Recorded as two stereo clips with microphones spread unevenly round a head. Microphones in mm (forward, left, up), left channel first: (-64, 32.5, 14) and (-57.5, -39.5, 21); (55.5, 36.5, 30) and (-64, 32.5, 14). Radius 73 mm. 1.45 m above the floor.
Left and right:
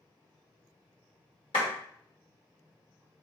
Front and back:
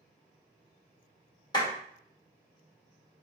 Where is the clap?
55° left, 2 m.